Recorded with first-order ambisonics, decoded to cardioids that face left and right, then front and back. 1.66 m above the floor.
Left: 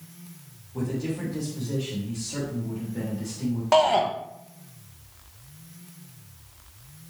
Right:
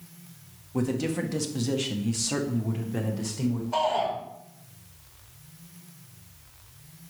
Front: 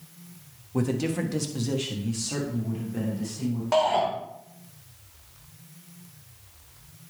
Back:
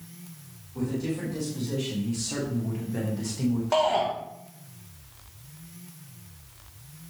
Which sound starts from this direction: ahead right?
A man speaking, at 0.7 s.